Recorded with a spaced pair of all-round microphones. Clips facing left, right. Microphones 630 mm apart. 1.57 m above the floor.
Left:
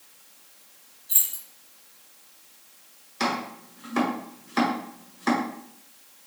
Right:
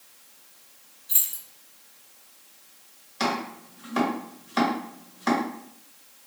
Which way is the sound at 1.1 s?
65° right (ahead or behind).